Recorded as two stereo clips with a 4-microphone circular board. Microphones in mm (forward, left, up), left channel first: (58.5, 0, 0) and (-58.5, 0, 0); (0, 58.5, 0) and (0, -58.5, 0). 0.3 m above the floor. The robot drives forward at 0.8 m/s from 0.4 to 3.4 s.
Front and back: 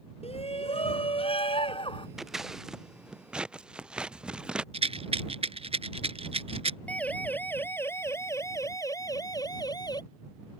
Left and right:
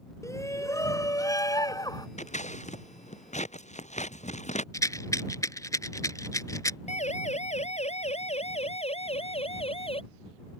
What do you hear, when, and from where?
0.2 s a shout: 25° left; by 2.1 s 35° left
2.2 s scissors: 95° left; by 4.6 s 100° left
4.7 s a rattle: 150° left
6.9 s a siren: 80° left; by 10.0 s 55° left